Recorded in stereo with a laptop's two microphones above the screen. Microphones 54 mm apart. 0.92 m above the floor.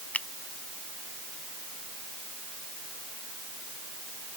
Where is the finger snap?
25° left (ahead or behind).